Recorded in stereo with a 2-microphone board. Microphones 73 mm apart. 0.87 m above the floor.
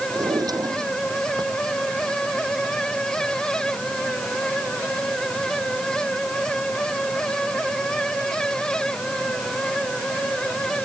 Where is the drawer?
60° right (ahead or behind).